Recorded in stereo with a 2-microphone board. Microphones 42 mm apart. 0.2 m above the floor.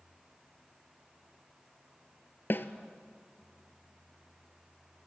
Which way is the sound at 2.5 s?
55° left (ahead or behind).